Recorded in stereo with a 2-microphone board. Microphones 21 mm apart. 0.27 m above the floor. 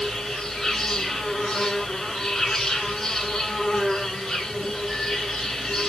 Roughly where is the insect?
Left.